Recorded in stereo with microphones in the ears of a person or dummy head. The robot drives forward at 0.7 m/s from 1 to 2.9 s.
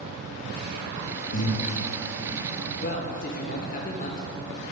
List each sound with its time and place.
1.3 s breathing: 45° left (ahead or behind), 1.1 m; by 1.6 s 50° left (ahead or behind), 1.0 m
2.8 s a man speaking: 45° left (ahead or behind), 1.0 m; by 4.2 s 40° left (ahead or behind), 1.0 m